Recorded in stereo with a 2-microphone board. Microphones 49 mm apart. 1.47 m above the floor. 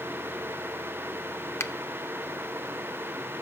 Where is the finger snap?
60° left (ahead or behind), 0.7 m.